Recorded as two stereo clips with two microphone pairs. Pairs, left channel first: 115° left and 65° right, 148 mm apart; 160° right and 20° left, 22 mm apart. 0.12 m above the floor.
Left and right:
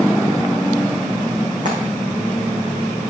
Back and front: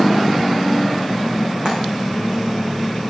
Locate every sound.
1.6 s frying: 30° right, 5 m